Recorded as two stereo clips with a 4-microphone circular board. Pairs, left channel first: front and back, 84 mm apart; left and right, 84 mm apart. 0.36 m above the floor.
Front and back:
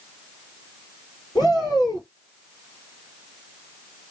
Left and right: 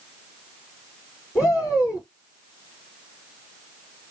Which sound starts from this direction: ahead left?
A shout, at 1.4 s.